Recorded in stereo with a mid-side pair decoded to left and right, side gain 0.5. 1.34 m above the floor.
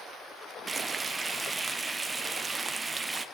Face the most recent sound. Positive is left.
turn(degrees=-25)